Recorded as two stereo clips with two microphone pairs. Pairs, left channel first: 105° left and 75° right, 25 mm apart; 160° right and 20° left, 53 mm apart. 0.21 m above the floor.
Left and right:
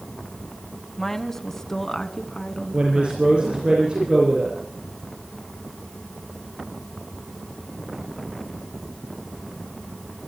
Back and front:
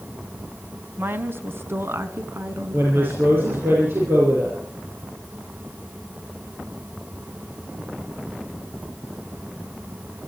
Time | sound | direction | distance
1.0 | a woman speaking | 35° left | 1.6 m
2.7 | a woman speaking | 30° right | 6 m